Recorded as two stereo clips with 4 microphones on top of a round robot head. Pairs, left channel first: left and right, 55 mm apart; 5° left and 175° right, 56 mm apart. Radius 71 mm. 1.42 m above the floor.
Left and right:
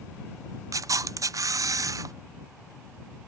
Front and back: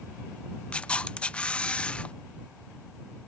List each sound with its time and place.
0.7 s a camera shutter: 70° right